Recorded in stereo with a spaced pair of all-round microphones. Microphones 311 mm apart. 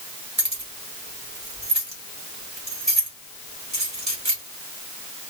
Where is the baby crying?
No baby crying in this recording.